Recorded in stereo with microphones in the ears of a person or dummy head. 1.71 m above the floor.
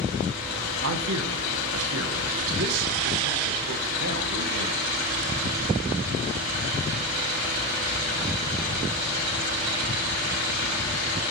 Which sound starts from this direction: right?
A man speaking, at 0.8 s.